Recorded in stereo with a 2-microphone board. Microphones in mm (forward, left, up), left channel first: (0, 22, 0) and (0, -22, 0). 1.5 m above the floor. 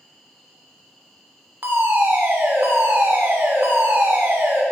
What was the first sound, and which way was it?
An insect, centre (ahead or behind).